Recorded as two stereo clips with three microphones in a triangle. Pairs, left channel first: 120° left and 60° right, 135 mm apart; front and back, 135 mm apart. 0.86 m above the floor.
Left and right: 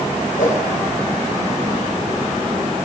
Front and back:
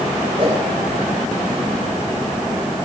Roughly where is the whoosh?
Behind left.